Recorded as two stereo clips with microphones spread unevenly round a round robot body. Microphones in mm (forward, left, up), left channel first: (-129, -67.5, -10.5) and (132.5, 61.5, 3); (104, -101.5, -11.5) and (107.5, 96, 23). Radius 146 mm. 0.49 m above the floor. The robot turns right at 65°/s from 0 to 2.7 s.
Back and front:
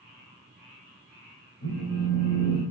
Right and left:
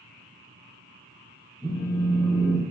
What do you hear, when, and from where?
1.6 s a phone buzzing: 165° right, 1.5 m; by 2.6 s 100° right, 1.5 m